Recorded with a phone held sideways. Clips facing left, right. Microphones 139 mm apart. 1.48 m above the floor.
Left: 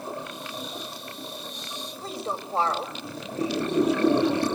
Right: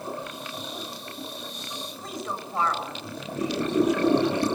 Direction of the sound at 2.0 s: 30° left (ahead or behind).